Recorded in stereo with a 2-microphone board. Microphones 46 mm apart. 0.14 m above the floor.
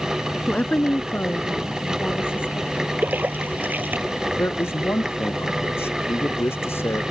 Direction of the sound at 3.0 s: 45° right (ahead or behind).